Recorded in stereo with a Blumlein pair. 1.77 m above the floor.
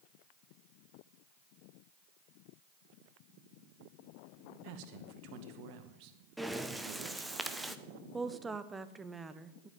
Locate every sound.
4.6 s a man speaking: 45° right, 2 m
6.4 s breathing: 5° right, 1.1 m
8.1 s a woman speaking: 10° right, 1.2 m